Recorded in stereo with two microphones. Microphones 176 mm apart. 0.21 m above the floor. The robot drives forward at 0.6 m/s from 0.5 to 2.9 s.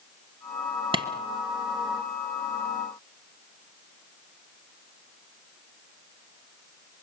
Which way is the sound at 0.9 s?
30° right (ahead or behind).